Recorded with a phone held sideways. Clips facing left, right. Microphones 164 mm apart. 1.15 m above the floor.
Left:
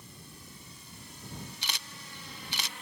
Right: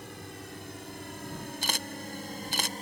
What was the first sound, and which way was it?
A drone, 75° right (ahead or behind).